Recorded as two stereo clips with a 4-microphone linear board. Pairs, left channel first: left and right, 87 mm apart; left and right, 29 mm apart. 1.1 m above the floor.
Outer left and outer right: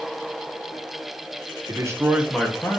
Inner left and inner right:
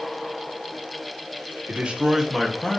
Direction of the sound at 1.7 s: 45° right (ahead or behind).